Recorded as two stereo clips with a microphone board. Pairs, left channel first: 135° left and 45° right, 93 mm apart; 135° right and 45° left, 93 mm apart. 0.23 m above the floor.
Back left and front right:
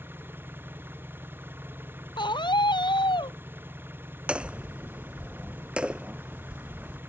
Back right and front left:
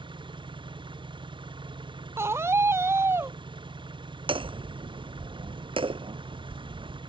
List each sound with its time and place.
0.0 s an engine running: 20° left
2.2 s a scream: 105° left
4.3 s hammering: 35° left